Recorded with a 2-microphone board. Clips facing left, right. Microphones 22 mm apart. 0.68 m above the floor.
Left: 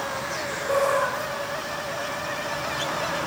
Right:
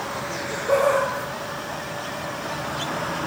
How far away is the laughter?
About 2.5 m.